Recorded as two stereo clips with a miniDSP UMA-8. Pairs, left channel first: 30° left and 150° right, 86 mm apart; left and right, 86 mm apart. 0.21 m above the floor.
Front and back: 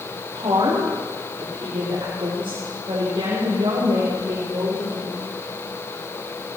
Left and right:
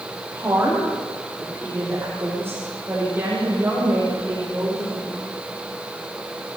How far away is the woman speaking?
About 6 m.